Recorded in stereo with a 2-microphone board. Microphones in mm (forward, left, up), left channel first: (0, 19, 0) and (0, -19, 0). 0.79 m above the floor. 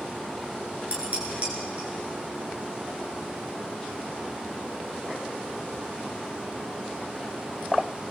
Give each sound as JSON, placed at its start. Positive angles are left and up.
{"t": 0.9, "sound": "dishes clattering", "side_deg": -40, "distance_m": 8.0}